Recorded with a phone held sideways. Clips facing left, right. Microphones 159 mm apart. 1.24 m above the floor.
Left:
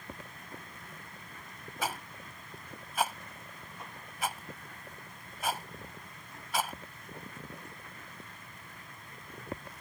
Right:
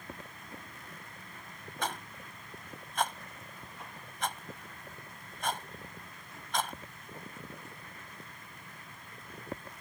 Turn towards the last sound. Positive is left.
turn(degrees=5)  # may be behind; listen again after turning